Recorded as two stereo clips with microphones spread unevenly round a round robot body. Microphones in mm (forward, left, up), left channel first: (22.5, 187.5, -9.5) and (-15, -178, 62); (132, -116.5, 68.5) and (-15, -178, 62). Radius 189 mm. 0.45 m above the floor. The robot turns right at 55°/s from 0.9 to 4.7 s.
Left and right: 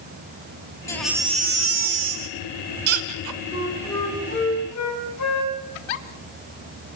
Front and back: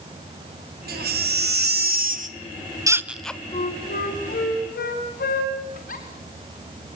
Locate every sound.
0.9 s a baby crying: 165° left, 1.5 m; by 3.4 s 55° right, 1.5 m
3.5 s a flute: 20° right, 3.5 m; by 5.6 s 45° left, 3.5 m
5.8 s a giggle: 85° left, 1.5 m